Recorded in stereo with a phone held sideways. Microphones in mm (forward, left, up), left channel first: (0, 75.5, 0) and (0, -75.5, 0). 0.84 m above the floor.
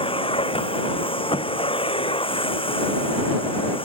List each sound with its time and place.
0.0 s a machine running: 35° left (ahead or behind)